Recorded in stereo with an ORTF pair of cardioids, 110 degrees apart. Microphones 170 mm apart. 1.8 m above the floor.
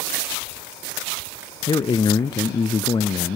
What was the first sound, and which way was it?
A man speaking, 25° left.